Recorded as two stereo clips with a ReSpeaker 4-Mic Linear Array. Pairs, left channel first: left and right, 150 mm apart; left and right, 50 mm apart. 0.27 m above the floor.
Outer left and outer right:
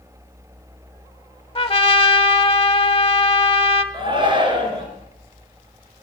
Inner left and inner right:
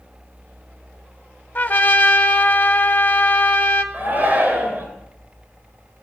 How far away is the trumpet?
About 0.8 m.